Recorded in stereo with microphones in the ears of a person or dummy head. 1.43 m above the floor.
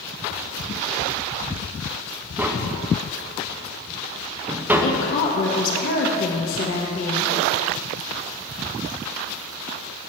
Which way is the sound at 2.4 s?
10° right (ahead or behind).